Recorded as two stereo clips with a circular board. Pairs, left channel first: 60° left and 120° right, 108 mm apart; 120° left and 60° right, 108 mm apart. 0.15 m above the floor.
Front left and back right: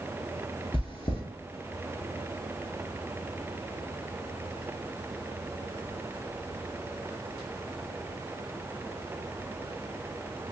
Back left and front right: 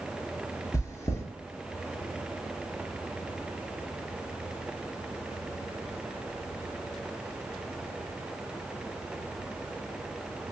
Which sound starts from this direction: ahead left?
Chewing, at 0.7 s.